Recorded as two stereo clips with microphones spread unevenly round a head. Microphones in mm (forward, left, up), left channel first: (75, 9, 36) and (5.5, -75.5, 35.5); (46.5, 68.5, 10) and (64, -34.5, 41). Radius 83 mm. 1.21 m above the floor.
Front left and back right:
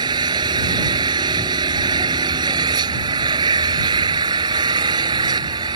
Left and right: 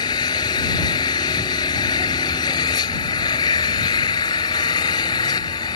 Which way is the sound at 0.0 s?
165° left.